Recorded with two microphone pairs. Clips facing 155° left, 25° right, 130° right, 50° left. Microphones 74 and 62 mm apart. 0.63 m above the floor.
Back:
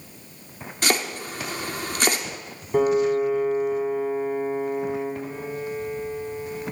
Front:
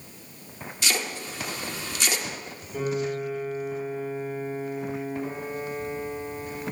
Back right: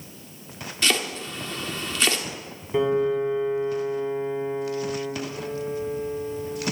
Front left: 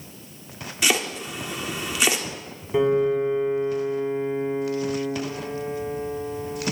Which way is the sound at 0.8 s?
125° left.